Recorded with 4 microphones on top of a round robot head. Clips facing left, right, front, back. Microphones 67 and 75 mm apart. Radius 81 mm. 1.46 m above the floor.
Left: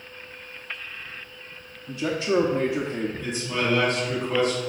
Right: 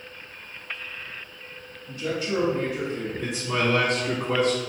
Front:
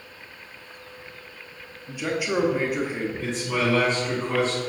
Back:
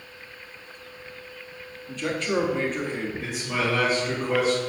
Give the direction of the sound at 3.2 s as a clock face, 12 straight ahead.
3 o'clock.